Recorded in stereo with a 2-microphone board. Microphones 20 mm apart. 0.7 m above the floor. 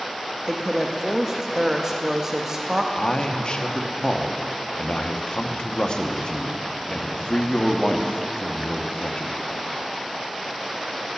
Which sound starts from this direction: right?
A woman speaking, at 0.5 s.